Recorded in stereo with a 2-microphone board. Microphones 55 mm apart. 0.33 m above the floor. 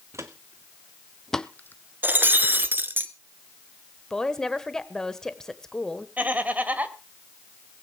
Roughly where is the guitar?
No guitar in this recording.